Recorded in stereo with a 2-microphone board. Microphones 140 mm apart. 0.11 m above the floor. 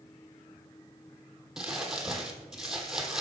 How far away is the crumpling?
About 1.2 m.